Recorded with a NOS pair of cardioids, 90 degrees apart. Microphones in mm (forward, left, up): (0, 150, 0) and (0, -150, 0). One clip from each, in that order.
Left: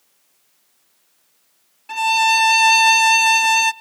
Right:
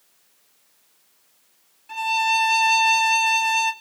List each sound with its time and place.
1.9 s a violin: 45° left, 0.9 m